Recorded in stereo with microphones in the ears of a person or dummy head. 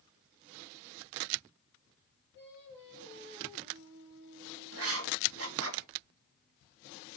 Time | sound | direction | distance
2.3 | singing | 25° right (ahead or behind) | 3.5 m
4.7 | writing | 70° right (ahead or behind) | 1.1 m